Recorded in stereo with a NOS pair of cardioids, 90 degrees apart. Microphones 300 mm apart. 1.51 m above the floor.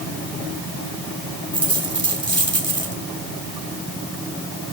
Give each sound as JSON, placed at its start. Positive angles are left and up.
{"t": 1.5, "sound": "a dropped coin", "azimuth_deg": -15, "distance_m": 3.5}